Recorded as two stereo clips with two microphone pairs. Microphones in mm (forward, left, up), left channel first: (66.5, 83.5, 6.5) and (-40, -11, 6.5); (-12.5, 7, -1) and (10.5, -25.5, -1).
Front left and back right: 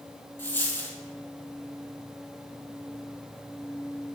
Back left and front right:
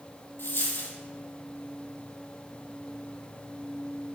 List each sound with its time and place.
0.4 s a dropped coin: 115° left, 1.8 m